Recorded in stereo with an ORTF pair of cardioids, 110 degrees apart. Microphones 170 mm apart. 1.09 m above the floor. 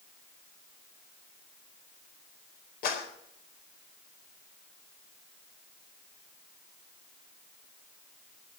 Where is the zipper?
No zipper in this recording.